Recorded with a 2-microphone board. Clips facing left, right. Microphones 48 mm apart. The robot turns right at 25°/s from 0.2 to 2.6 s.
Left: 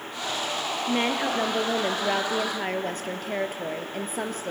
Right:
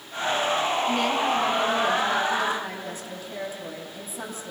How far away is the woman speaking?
About 2.5 m.